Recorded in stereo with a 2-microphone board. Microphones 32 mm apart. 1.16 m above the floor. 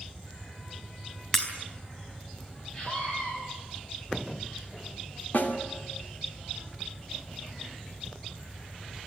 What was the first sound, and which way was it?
Breaking glass, 10° left (ahead or behind).